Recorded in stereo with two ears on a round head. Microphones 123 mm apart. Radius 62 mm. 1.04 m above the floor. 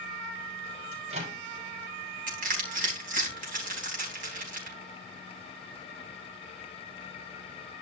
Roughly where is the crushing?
Right.